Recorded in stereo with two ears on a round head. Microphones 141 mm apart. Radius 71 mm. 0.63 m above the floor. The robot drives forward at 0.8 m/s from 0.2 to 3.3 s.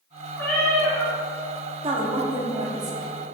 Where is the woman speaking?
35° right (ahead or behind), 1.1 m; by 3.1 s 25° right (ahead or behind), 1.6 m.